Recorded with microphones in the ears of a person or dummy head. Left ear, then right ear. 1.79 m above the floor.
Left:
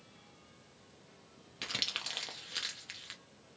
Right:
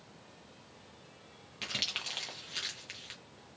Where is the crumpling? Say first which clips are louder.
Right 1 dB; 10° left (ahead or behind), 0.7 m.